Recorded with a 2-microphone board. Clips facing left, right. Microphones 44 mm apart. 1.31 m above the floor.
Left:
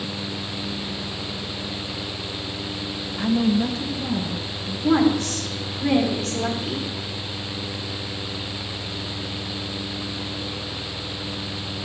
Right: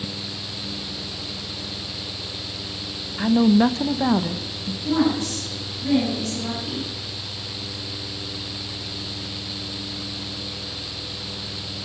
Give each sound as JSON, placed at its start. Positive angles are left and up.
{"t": 3.2, "sound": "a woman speaking", "side_deg": -10, "distance_m": 0.9}
{"t": 4.8, "sound": "a woman speaking", "side_deg": 80, "distance_m": 3.5}